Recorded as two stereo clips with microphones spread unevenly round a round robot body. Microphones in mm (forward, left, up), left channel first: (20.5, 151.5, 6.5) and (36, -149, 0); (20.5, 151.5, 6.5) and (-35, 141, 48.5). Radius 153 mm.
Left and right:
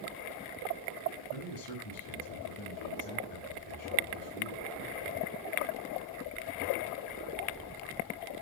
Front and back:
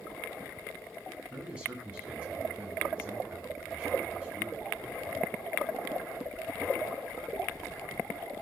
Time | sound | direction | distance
1.3 | a man speaking | 120° left | 7 m